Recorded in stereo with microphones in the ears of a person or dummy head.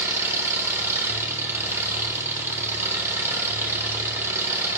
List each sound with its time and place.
0.0 s an engine running: 10° right (ahead or behind), 1.1 m